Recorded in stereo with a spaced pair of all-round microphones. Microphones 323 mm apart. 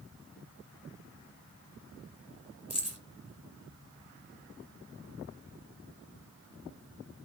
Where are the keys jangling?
50° left (ahead or behind), 2.5 m.